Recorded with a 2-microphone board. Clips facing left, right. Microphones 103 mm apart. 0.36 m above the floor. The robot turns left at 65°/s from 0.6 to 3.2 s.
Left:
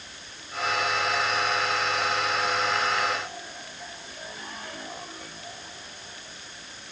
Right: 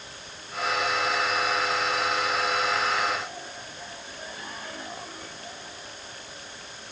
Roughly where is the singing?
I don't hear singing.